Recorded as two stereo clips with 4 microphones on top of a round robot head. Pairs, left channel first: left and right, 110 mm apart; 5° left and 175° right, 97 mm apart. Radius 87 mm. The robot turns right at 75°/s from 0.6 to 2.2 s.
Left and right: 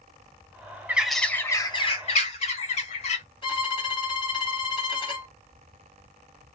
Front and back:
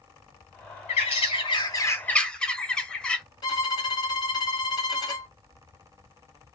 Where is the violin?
50° left, 2.5 m.